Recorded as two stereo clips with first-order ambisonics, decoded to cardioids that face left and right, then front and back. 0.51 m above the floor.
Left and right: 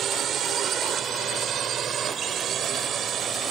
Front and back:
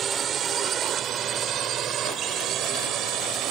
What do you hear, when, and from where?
0.0 s a drone: 135° right; by 3.5 s 145° right